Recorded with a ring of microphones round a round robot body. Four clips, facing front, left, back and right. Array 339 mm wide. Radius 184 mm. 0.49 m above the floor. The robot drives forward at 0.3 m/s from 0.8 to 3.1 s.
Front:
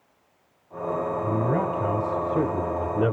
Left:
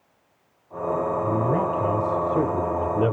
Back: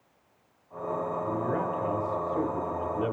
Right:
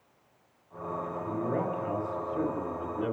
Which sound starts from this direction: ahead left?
A man speaking, at 1.2 s.